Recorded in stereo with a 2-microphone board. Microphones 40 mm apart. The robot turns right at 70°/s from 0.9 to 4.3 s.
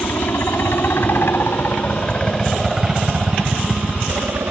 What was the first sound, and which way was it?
A helicopter, 65° left (ahead or behind).